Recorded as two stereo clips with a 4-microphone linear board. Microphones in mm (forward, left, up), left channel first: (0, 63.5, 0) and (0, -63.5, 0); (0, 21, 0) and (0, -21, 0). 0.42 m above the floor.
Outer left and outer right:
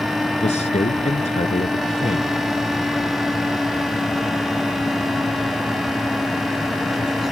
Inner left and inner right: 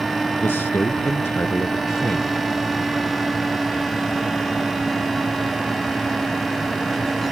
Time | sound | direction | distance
0.4 | a man speaking | 60° left (ahead or behind) | ?